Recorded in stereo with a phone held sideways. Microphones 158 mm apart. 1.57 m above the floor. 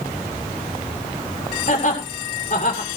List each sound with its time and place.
1.7 s laughter: 55° left (ahead or behind), 6.5 m